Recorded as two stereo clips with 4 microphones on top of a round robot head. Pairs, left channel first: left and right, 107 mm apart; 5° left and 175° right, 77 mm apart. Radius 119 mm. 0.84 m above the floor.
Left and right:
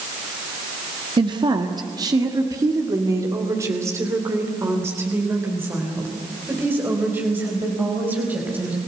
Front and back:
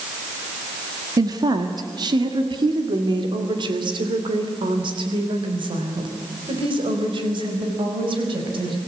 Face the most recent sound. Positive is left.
turn(degrees=-165)